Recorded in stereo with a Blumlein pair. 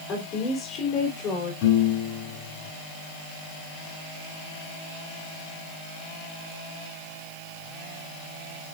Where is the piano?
45° left, 9.5 m.